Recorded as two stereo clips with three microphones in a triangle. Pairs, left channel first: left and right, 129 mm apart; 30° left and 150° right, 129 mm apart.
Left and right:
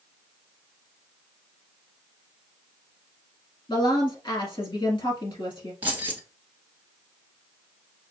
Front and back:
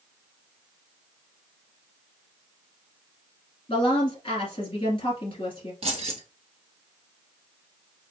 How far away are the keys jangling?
About 1.2 m.